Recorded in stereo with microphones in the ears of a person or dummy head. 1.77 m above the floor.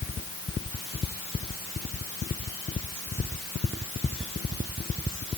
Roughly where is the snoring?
I don't hear snoring.